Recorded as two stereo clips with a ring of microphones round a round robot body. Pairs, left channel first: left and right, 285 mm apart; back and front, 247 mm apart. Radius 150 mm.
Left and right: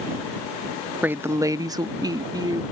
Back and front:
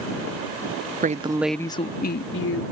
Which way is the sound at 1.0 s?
10° right.